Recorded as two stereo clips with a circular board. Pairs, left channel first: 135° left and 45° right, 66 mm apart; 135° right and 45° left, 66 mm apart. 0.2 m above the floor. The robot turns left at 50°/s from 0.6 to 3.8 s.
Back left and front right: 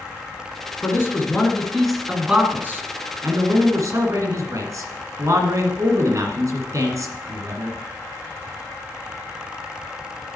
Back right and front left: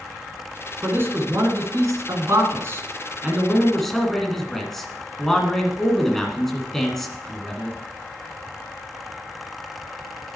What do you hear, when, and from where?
0.8 s a man speaking: 100° left, 2 m; by 7.8 s 50° right, 2 m